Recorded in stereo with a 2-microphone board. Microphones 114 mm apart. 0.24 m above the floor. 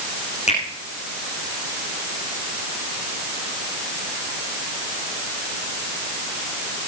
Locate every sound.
0.5 s a finger snap: 75° left (ahead or behind), 9.5 m